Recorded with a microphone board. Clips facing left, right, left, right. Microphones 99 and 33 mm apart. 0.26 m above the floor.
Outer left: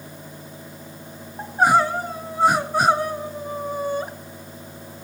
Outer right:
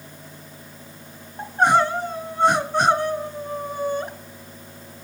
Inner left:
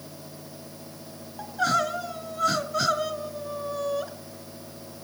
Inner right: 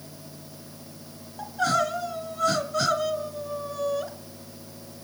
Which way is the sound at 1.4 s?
5° left (ahead or behind).